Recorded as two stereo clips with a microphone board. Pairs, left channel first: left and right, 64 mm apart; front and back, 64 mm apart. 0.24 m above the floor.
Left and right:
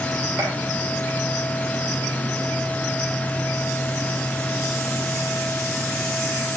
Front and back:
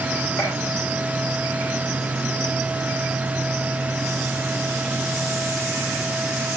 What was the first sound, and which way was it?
A gunshot, 40° right.